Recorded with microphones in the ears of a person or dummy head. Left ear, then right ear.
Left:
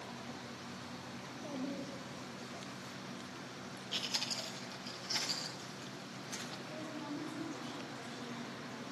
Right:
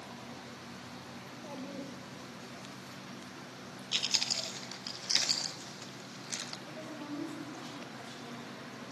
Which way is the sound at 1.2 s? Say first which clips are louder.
Left 2 dB; 50° right (ahead or behind).